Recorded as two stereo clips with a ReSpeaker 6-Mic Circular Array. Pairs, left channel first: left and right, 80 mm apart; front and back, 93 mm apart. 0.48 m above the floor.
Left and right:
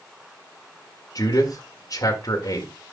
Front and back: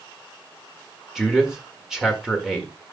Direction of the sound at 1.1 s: 95° left.